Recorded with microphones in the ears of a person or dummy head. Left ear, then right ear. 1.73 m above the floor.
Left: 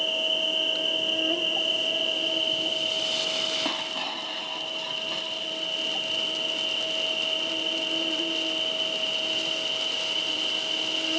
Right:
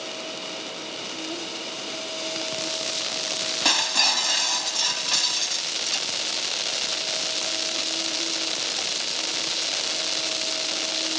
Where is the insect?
75° left (ahead or behind).